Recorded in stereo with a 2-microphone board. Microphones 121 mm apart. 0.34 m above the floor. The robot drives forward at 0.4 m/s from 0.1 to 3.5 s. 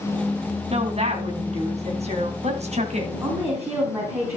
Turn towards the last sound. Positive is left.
turn(degrees=-20)  # may be behind; listen again after turning